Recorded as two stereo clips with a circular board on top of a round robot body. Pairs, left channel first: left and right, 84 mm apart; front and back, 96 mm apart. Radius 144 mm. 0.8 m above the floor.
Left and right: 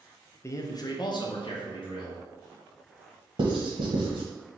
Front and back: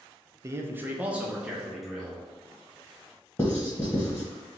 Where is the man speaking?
130° left, 0.6 m; by 2.2 s 90° left, 1.4 m.